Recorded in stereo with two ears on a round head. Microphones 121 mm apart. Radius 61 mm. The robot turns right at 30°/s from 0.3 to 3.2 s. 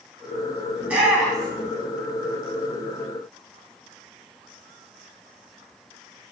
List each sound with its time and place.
0.8 s a shout: 15° right (ahead or behind), 3.5 m; by 1.7 s 10° left (ahead or behind), 3.5 m